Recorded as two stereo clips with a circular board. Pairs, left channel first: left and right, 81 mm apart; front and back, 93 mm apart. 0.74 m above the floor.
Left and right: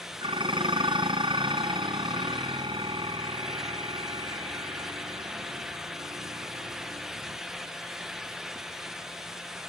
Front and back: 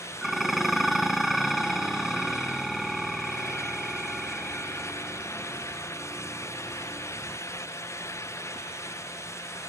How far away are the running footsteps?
No running footsteps in this recording.